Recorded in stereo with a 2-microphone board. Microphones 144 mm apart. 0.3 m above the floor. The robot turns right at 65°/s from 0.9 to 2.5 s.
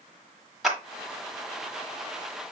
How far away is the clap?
About 1.3 m.